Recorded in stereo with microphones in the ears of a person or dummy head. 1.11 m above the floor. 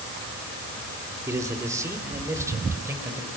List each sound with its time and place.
1.3 s a man speaking: 20° right (ahead or behind), 2.5 m; by 3.3 s 15° right (ahead or behind), 5 m